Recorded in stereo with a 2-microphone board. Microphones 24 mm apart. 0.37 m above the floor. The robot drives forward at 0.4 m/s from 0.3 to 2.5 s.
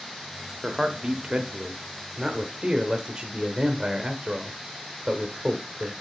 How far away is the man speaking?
About 1.0 m.